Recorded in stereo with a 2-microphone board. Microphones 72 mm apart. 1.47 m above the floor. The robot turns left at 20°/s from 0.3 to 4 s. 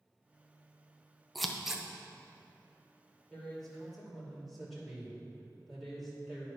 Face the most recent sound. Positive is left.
turn(degrees=-5)  # may be behind; listen again after turning